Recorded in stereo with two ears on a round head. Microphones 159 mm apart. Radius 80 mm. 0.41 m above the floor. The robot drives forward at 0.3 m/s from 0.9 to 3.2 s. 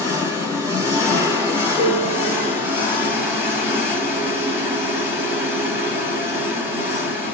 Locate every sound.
0.0 s an engine running: 20° right (ahead or behind), 1.1 m; by 7.3 s 10° right (ahead or behind), 1.7 m
1.8 s a piano: 40° right (ahead or behind), 1.7 m; by 2.5 s 35° right (ahead or behind), 1.8 m